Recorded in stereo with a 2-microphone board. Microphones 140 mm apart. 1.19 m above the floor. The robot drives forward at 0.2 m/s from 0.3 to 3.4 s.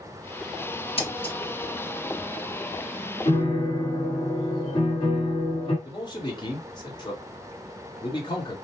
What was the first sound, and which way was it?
Scissors, 40° left (ahead or behind).